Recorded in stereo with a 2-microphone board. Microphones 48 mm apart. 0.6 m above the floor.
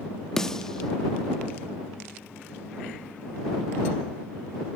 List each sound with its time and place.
0.4 s a snare drum: 10° left (ahead or behind)